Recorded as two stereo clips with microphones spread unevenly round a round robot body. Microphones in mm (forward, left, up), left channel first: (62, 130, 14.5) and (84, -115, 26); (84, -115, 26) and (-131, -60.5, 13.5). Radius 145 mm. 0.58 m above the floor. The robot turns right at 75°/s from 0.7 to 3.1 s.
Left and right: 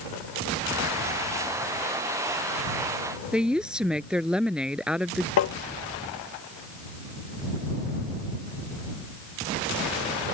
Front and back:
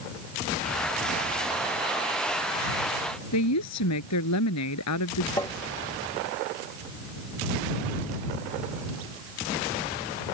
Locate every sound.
3.3 s a woman speaking: straight ahead
5.4 s tapping: 65° left